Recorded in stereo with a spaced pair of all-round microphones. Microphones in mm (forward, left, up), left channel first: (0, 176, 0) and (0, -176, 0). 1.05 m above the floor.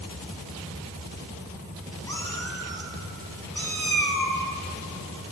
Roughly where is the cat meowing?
Centre.